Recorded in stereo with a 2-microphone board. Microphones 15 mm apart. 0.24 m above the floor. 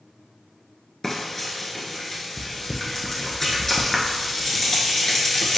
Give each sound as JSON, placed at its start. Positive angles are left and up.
{"t": 1.0, "sound": "frying", "side_deg": 30, "distance_m": 0.9}